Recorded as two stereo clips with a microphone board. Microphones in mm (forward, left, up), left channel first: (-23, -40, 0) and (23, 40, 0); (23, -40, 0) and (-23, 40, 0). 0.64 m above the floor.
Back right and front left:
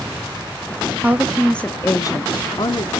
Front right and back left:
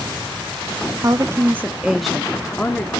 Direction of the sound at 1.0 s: 120° left.